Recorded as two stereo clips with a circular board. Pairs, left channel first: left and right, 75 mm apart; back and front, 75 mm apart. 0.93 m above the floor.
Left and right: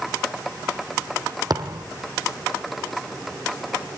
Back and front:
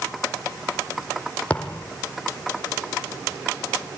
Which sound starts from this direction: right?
A thud, at 1.5 s.